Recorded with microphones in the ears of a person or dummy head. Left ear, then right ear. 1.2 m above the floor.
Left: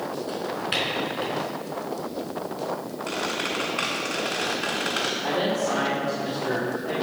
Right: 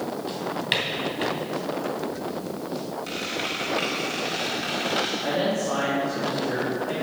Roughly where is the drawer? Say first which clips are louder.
Right 2 dB; right.